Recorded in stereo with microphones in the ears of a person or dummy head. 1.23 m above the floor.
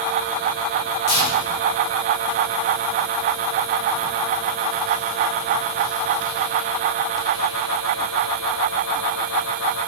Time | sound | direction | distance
1.1 | tearing paper | 50° left (ahead or behind) | 4.5 m